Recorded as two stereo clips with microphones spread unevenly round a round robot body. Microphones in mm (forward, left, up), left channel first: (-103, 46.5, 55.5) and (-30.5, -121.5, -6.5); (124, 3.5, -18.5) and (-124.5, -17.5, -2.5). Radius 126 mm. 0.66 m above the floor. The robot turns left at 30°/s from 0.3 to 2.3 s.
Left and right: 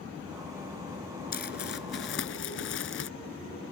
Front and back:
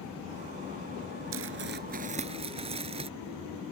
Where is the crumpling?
145° left; by 3.1 s 115° left.